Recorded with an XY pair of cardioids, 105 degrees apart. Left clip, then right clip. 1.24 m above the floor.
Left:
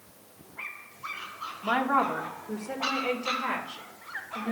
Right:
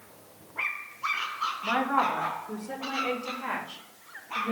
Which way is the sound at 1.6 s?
25° left.